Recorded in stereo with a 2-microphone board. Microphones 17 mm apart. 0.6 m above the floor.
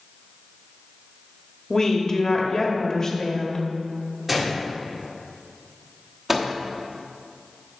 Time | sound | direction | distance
1.7 | a woman speaking | 30° left (ahead or behind) | 1.2 m
4.3 | a gunshot | 15° right (ahead or behind) | 1.6 m
6.3 | a microwave | 15° right (ahead or behind) | 1.0 m